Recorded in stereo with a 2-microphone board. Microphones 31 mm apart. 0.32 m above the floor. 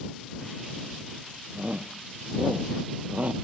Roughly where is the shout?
Right.